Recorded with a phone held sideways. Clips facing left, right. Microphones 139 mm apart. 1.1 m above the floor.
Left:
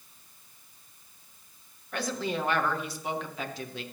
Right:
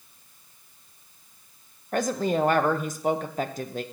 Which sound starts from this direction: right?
A woman speaking, at 1.9 s.